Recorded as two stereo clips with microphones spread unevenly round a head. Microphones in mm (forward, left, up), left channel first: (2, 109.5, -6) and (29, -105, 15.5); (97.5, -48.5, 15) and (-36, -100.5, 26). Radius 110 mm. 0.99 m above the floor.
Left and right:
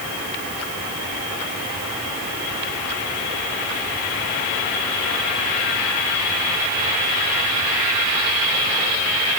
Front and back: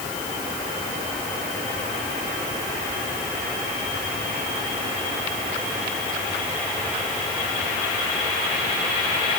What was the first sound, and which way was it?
Only background noise.